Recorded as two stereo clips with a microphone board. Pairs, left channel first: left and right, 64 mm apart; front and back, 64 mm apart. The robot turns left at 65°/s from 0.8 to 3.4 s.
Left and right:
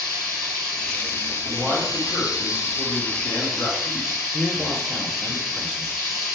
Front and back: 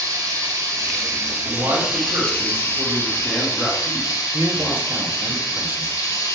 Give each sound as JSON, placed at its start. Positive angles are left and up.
{"t": 0.0, "sound": "running water", "azimuth_deg": 170, "distance_m": 3.5}
{"t": 1.4, "sound": "a man speaking", "azimuth_deg": -175, "distance_m": 4.0}
{"t": 4.3, "sound": "a man speaking", "azimuth_deg": 175, "distance_m": 1.0}